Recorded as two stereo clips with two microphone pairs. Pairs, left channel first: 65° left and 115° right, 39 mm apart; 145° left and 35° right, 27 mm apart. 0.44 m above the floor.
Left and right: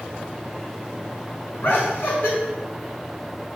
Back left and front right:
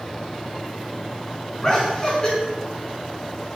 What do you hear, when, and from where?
1.6 s laughter: 80° left, 5 m